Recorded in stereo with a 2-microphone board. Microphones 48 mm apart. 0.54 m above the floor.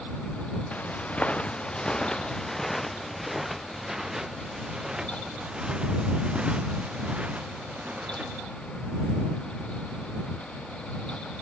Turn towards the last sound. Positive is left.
turn(degrees=-30)  # may be behind; listen again after turning